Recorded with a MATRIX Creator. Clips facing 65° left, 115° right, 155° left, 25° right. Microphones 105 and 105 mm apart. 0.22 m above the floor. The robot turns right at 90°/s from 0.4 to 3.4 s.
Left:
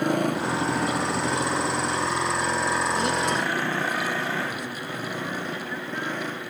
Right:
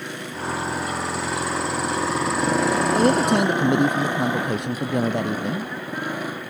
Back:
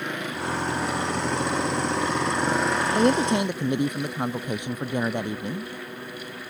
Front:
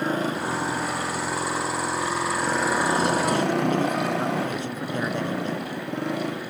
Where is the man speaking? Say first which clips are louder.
Right 7 dB, back 2 dB; 170° right; by 5.7 s 130° right.